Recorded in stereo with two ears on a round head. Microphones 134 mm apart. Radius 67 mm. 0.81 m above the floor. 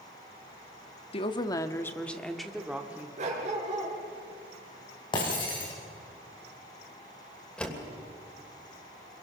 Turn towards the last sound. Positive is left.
turn(degrees=5)  # may be behind; listen again after turning